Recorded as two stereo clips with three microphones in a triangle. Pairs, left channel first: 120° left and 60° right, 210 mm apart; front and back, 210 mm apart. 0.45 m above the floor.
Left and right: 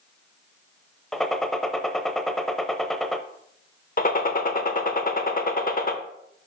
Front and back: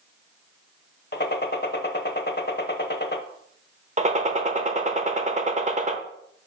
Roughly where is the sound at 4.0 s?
Behind left.